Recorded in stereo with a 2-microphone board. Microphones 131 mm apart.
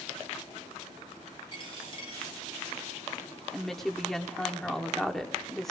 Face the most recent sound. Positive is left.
turn(degrees=5)  # may be behind; listen again after turning